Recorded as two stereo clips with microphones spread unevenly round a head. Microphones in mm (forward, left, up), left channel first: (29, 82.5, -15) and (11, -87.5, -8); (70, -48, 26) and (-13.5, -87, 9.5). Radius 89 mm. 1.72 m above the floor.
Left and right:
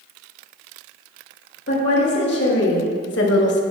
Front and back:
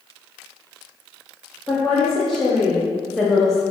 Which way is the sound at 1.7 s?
115° left.